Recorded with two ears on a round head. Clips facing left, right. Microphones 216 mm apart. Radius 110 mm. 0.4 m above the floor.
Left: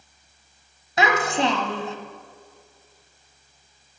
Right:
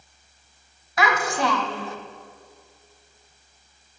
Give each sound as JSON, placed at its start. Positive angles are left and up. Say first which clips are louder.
{"t": 1.0, "sound": "a child speaking", "louder": "left 2 dB", "side_deg": 20, "distance_m": 1.4}